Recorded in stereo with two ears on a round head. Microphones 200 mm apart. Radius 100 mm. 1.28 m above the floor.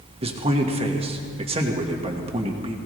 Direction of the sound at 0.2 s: 25° right (ahead or behind).